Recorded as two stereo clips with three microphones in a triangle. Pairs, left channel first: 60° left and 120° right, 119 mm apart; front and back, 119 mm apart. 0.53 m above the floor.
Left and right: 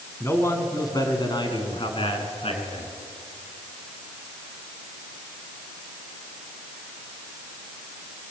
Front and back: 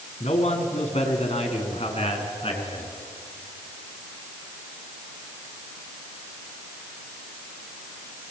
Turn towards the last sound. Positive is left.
turn(degrees=35)